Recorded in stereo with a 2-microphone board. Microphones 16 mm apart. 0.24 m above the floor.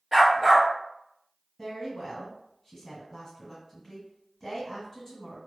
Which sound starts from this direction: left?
A woman speaking, at 1.6 s.